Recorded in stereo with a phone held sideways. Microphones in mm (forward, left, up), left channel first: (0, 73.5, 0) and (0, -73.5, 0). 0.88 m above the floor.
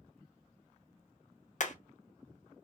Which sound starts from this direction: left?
Hammering, at 1.6 s.